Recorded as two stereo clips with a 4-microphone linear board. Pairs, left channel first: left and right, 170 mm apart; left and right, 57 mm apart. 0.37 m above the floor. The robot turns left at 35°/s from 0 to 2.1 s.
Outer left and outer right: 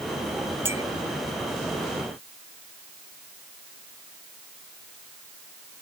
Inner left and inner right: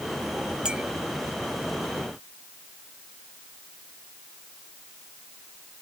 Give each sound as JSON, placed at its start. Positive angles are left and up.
{"t": 0.7, "sound": "a clink", "side_deg": -15}